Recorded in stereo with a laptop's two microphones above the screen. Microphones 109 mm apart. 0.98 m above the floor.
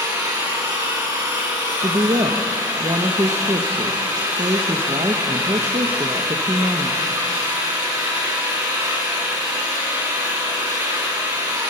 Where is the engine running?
35° right (ahead or behind), 5.5 m.